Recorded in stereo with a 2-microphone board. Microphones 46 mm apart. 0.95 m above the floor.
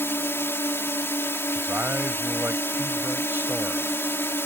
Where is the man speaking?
45° right (ahead or behind).